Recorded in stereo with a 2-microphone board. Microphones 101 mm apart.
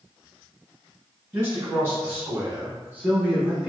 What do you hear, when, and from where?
1.3 s a man speaking: 25° right (ahead or behind), 1.8 m; by 3.7 s 10° right (ahead or behind), 1.2 m